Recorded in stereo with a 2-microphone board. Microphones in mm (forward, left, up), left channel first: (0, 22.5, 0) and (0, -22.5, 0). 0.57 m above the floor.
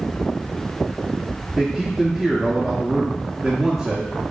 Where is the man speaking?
15° right (ahead or behind), 0.9 m.